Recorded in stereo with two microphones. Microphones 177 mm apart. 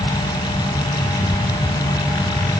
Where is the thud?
No thud in this recording.